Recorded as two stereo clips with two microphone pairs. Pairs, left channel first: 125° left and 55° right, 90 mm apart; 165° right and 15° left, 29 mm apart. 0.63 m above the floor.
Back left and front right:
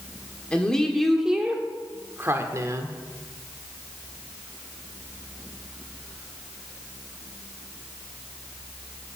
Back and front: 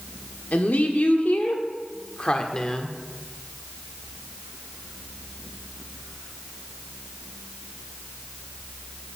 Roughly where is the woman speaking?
Behind right.